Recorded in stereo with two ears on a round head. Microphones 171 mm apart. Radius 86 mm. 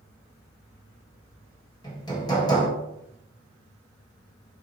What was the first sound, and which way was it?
Hammering, 20° left (ahead or behind).